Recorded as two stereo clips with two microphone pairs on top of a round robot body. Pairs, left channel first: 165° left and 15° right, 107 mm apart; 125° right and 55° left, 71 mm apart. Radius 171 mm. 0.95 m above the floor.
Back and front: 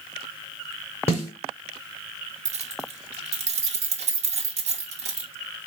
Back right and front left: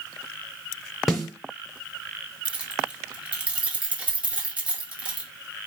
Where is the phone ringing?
I don't hear a phone ringing.